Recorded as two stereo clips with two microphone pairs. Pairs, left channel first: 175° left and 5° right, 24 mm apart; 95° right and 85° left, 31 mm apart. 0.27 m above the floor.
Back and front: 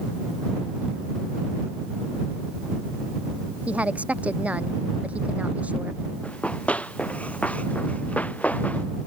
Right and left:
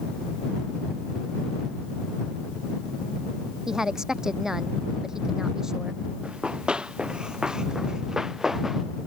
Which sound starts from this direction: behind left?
Running footsteps, at 6.2 s.